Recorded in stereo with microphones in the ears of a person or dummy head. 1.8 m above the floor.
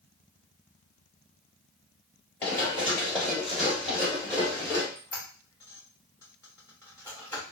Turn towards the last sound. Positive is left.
turn(degrees=15)  # may be behind; listen again after turning